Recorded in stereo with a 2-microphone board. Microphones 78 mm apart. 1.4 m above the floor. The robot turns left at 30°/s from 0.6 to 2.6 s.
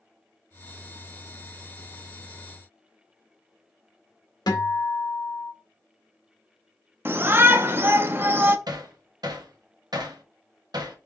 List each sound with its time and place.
4.5 s a guitar: 60° left (ahead or behind), 1.7 m
7.0 s a shout: 30° right (ahead or behind), 0.7 m
8.7 s hammering: 60° right (ahead or behind), 0.8 m